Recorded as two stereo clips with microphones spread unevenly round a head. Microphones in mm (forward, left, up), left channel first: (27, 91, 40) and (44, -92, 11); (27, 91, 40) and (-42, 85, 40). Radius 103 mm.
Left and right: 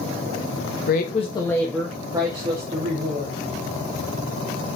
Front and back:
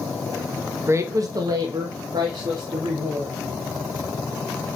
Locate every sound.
0.9 s a woman speaking: 135° left, 1.2 m; by 3.4 s 135° right, 3 m